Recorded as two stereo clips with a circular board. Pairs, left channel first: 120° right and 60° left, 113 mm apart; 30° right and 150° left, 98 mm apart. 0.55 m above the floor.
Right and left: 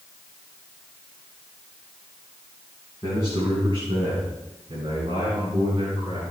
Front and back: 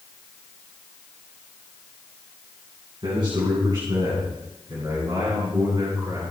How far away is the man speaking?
About 4.5 m.